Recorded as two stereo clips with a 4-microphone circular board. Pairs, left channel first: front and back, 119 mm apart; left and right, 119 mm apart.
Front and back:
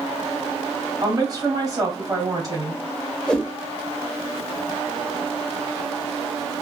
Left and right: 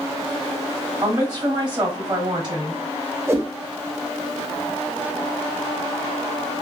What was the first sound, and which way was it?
A woman speaking, 130° right.